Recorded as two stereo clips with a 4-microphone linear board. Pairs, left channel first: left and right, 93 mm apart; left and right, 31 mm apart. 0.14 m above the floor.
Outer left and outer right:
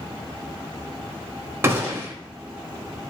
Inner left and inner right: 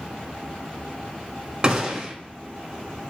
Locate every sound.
1.6 s a gunshot: 25° right (ahead or behind), 0.8 m